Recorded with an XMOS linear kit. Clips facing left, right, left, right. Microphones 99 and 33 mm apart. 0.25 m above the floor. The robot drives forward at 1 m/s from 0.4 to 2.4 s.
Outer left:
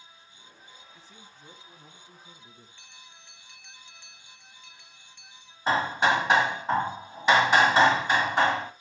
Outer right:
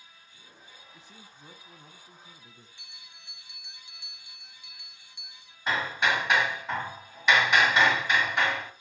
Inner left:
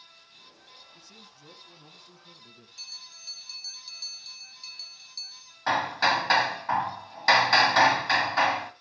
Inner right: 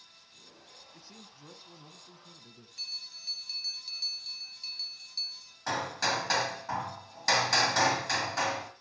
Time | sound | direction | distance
0.9 | a man speaking | 15° right (ahead or behind) | 1.3 m
2.8 | a bell | 10° right (ahead or behind) | 2 m
5.7 | hammering | 30° left (ahead or behind) | 1.3 m